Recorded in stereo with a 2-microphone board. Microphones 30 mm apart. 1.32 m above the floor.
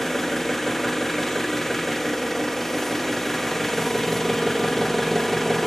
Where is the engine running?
5° left (ahead or behind), 0.9 m.